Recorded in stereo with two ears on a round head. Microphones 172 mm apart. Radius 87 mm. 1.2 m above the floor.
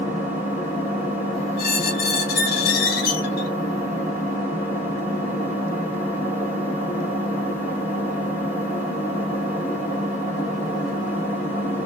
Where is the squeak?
50° left (ahead or behind), 0.8 m.